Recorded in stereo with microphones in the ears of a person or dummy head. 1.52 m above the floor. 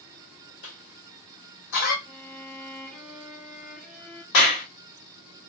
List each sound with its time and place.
0.6 s a cough: 65° left (ahead or behind), 1.5 m
2.0 s a violin: centre (ahead or behind), 1.0 m
4.3 s a clap: 70° left (ahead or behind), 1.3 m